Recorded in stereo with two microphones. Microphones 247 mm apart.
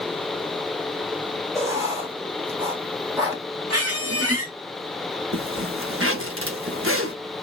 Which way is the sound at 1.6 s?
15° right (ahead or behind).